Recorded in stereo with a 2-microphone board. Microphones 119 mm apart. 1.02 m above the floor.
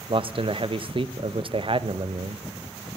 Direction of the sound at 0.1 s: 50° right (ahead or behind).